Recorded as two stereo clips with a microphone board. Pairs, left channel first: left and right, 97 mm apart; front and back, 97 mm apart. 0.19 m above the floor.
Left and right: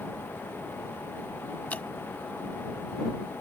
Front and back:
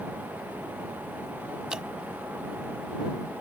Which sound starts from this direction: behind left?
Dripping, at 1.7 s.